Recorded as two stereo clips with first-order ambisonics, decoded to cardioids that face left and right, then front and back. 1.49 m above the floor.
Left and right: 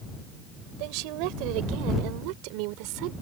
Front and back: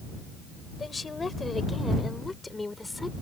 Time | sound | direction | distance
0.8 | a woman speaking | 75° right | ?